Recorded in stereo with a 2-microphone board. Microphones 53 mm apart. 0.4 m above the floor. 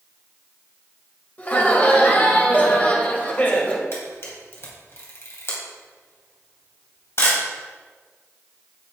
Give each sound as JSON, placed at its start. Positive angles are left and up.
{"t": 1.4, "sound": "laughter", "side_deg": 30, "distance_m": 2.0}
{"t": 3.9, "sound": "a camera shutter", "side_deg": 55, "distance_m": 3.0}